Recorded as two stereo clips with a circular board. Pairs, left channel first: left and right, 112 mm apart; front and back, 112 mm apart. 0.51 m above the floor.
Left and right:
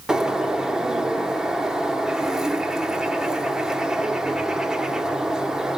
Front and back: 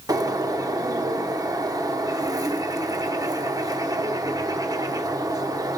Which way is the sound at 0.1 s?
170° right.